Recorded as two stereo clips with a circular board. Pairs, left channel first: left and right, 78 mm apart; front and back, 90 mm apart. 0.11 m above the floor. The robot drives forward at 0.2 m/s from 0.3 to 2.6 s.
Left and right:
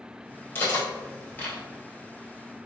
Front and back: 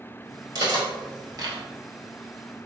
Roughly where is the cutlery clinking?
Behind left.